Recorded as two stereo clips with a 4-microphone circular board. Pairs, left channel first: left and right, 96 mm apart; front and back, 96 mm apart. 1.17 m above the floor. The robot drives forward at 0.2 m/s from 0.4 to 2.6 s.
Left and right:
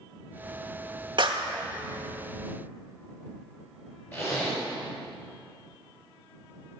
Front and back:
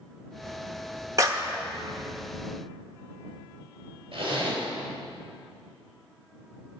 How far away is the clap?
About 1.0 m.